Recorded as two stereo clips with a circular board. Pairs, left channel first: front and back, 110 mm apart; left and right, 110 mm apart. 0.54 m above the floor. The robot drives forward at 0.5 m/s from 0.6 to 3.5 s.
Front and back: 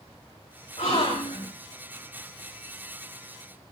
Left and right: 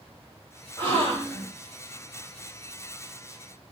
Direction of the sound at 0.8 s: 15° left.